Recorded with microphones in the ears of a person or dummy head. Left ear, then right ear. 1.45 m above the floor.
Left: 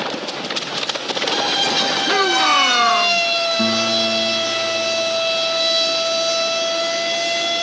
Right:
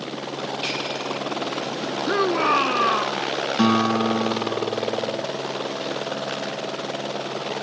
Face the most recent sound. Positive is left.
turn(degrees=-65)  # may be behind; listen again after turning